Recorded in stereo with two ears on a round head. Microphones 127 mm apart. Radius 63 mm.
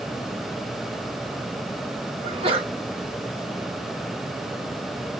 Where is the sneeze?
40° right (ahead or behind), 2 m.